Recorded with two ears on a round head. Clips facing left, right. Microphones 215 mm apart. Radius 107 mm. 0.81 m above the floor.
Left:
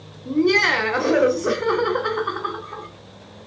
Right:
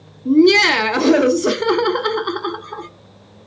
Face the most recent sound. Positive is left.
turn(degrees=-55)  # may be behind; listen again after turning